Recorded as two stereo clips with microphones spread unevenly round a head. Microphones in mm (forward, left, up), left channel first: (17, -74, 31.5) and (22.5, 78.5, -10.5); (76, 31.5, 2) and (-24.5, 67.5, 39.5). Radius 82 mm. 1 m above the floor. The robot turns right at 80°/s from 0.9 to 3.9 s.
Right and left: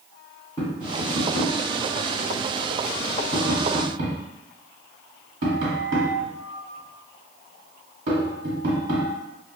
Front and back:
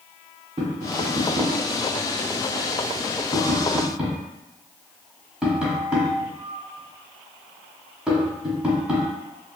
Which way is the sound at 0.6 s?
150° right.